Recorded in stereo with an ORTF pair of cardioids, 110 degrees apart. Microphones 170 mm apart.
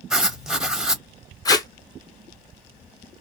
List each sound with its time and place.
0.1 s writing: 5° right, 0.8 m
1.4 s tape being pulled: 20° left, 0.7 m